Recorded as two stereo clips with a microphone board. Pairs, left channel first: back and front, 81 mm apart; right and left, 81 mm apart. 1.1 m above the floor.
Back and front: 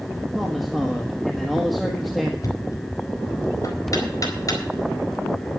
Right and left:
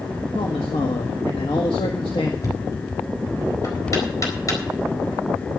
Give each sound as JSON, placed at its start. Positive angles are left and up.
{"t": 0.3, "sound": "a man speaking", "azimuth_deg": -90, "distance_m": 1.5}
{"t": 2.4, "sound": "knocking", "azimuth_deg": -135, "distance_m": 4.0}